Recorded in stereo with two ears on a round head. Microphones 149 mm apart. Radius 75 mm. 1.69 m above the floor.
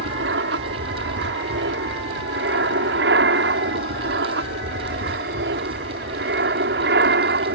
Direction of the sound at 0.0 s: 75° right (ahead or behind).